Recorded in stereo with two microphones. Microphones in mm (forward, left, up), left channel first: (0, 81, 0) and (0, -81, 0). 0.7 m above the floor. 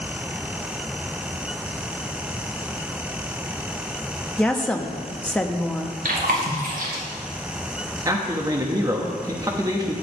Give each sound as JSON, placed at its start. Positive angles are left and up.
{"t": 4.4, "sound": "a woman speaking", "side_deg": 5, "distance_m": 0.8}
{"t": 6.0, "sound": "chewing", "side_deg": -65, "distance_m": 2.5}
{"t": 8.1, "sound": "a man speaking", "side_deg": -20, "distance_m": 0.9}